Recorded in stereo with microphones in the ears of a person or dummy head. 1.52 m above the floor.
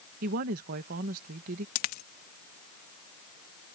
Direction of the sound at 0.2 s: 55° right (ahead or behind).